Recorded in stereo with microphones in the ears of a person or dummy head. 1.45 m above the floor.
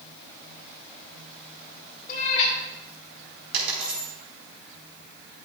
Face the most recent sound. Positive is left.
turn(degrees=-65)  # may be behind; listen again after turning